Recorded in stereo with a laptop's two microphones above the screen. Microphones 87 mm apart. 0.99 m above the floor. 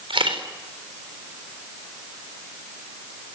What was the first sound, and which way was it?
A camera shutter, 80° right.